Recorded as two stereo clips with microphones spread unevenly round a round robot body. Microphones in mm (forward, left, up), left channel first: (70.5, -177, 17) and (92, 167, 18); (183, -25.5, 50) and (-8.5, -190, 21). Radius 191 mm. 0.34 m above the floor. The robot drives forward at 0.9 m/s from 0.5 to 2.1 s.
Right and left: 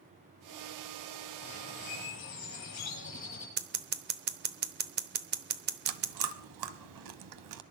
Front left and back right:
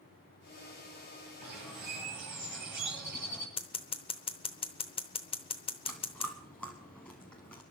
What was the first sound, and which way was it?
A bird, 150° right.